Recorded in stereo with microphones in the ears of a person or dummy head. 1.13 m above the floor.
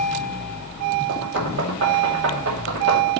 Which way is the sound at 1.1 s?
80° right.